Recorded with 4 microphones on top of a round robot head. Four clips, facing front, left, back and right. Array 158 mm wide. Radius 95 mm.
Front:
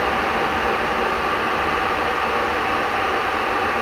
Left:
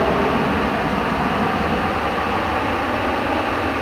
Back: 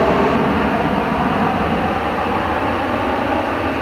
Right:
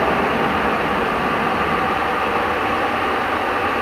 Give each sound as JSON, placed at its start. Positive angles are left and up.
{"t": 0.0, "sound": "an aircraft", "azimuth_deg": 175}